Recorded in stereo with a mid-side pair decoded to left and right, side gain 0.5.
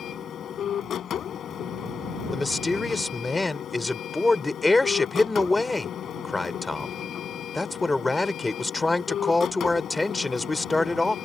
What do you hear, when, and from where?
0.0 s a machine running: 55° left
2.3 s a man speaking: 20° left